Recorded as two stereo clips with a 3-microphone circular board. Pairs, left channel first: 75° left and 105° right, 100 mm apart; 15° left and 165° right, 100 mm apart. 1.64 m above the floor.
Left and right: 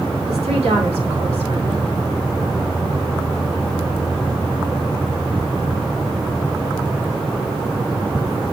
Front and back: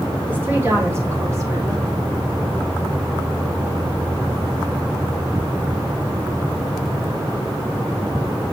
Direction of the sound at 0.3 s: 90° right.